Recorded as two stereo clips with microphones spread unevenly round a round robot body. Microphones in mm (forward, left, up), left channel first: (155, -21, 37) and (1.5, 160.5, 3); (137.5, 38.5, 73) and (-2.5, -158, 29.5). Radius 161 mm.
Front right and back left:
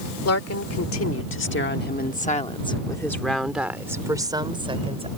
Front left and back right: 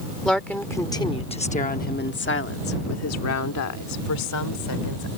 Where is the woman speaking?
35° right; by 5.1 s 65° left.